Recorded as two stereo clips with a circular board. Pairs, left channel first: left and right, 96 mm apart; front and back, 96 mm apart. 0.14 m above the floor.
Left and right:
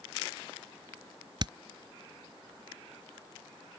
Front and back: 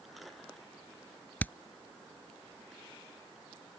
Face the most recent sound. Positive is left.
turn(degrees=-70)